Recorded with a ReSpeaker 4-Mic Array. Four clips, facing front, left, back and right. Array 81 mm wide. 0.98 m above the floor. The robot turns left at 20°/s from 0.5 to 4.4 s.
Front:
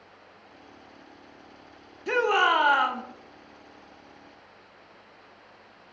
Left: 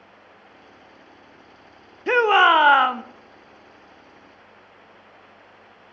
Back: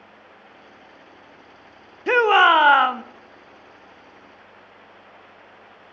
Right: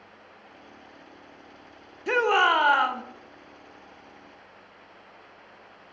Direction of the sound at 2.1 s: 150° left.